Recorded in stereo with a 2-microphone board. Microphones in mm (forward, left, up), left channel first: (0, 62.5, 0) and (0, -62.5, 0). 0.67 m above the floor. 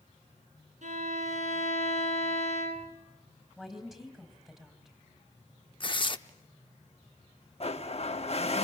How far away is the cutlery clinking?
I don't hear cutlery clinking.